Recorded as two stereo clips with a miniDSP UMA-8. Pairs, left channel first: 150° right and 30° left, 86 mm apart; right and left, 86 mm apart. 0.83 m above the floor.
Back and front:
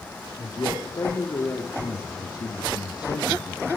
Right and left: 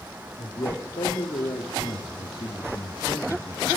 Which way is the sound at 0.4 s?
100° right.